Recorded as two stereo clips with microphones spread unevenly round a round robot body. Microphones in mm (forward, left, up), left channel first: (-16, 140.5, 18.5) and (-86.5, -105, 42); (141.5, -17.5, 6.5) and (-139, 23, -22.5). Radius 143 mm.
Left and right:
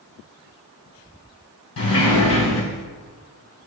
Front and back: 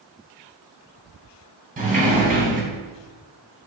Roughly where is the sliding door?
Left.